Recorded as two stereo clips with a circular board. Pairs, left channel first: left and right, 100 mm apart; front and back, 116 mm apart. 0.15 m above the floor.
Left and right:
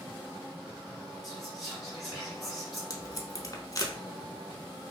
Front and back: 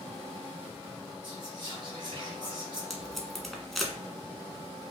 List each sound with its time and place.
1.2 s whispering: 175° left, 1.8 m
2.9 s tape being pulled: 90° left, 0.5 m